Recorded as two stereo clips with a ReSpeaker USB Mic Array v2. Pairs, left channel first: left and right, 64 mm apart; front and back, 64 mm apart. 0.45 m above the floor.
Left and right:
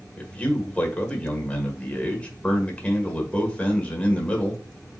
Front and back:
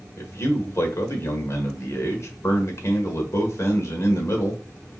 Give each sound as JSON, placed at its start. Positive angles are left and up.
{"t": 0.2, "sound": "a man speaking", "azimuth_deg": 25, "distance_m": 1.4}